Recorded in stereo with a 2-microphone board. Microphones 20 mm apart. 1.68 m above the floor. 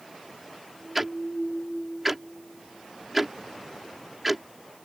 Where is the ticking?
5° right (ahead or behind).